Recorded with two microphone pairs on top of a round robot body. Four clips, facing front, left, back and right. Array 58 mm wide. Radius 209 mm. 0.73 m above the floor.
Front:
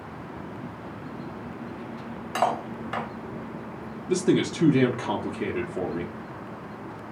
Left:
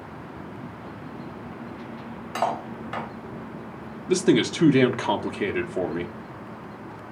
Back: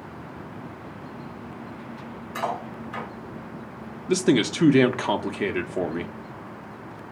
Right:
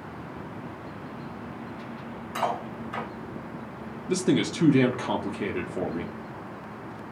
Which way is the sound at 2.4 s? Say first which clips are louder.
Left 2 dB, front 4 dB; 20° left.